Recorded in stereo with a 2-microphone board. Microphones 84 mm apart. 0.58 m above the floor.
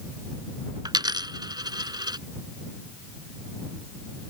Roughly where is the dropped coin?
Right.